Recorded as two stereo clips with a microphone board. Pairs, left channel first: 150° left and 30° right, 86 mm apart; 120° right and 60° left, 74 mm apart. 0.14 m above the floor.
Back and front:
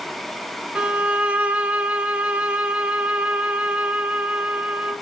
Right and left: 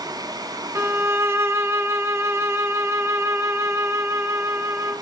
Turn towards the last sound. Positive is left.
turn(degrees=35)